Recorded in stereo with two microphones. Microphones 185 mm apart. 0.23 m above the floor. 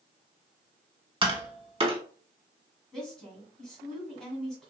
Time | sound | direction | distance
1.2 | tapping | 30° right (ahead or behind) | 0.7 m
2.9 | a woman speaking | centre (ahead or behind) | 1.3 m